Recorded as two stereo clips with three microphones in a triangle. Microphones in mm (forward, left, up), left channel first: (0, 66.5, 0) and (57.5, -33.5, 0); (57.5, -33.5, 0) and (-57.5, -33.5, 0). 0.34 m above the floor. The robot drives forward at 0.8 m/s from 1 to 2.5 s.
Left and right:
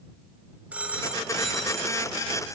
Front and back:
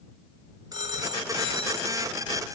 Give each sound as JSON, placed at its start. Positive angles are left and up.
{"t": 0.7, "sound": "a phone ringing", "azimuth_deg": -135, "distance_m": 1.4}